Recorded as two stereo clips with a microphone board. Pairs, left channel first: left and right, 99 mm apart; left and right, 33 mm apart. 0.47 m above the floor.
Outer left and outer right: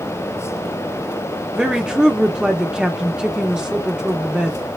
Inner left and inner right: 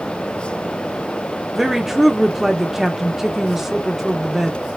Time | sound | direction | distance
1.6 | a woman speaking | 10° right (ahead or behind) | 0.9 m